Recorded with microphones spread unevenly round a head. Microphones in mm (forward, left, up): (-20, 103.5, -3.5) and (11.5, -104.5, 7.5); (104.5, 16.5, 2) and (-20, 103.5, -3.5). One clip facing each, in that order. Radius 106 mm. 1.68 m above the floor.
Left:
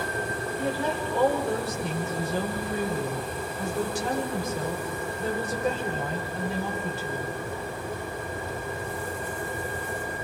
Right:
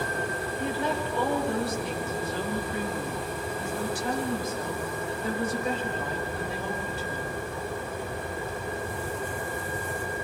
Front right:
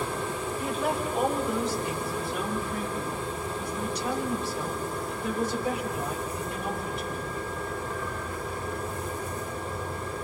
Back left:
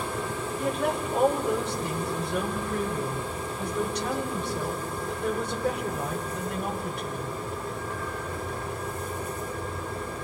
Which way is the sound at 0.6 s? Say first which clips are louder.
Left 1 dB, back left 2 dB; 115° left.